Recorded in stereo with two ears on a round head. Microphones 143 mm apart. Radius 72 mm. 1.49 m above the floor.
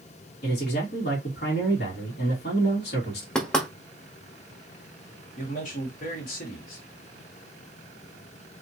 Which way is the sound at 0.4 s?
65° left (ahead or behind).